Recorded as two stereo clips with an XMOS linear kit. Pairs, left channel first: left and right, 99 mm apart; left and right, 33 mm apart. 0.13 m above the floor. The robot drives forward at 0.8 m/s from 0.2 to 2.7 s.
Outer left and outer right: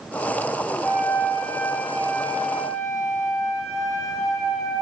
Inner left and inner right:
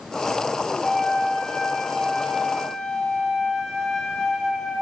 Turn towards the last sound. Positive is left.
turn(degrees=25)  # may be behind; listen again after turning